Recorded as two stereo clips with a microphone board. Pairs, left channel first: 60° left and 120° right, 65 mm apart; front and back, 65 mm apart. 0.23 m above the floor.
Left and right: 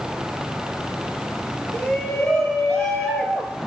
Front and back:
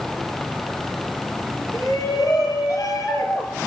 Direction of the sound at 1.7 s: 20° right.